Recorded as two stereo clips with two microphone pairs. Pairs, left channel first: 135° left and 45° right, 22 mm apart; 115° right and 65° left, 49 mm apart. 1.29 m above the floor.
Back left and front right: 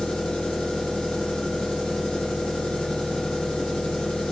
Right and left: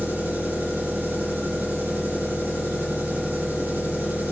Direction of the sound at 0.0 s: 110° left.